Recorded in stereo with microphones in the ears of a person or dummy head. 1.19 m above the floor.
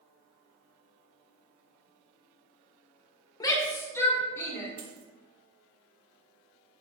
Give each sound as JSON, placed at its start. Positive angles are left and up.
{"t": 3.4, "sound": "a shout", "side_deg": 20, "distance_m": 1.0}
{"t": 4.8, "sound": "a dropped coin", "side_deg": -55, "distance_m": 1.9}